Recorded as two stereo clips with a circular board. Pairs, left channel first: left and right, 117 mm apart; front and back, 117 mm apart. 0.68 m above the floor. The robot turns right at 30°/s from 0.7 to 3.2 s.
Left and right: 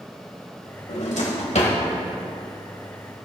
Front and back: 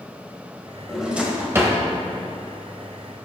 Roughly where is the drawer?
Left.